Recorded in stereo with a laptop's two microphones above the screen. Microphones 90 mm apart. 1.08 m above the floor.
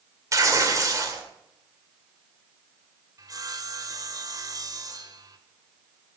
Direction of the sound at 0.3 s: 35° right (ahead or behind).